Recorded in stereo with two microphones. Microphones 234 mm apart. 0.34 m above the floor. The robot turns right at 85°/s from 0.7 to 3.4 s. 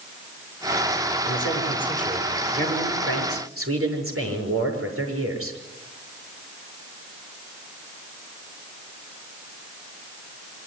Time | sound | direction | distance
1.2 | a man speaking | 110° left | 7 m